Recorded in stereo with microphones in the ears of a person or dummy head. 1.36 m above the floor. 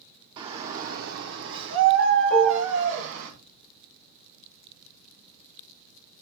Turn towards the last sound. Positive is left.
turn(degrees=0)  # may be behind; listen again after turning